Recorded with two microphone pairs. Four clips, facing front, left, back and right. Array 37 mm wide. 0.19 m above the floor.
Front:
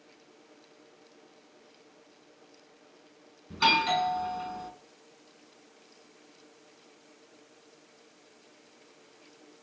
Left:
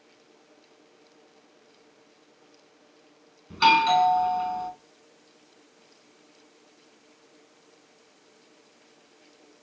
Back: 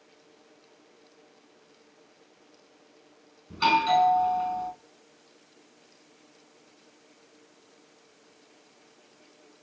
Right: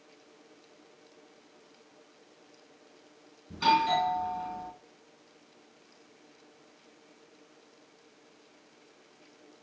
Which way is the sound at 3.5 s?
95° left.